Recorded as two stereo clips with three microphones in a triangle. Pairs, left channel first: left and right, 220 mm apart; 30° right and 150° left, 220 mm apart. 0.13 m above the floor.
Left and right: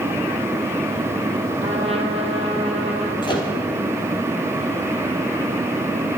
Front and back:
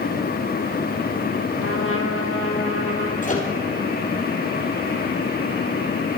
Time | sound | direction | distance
1.6 | a trumpet | 25° right | 2 m
3.2 | a microwave | 20° left | 3 m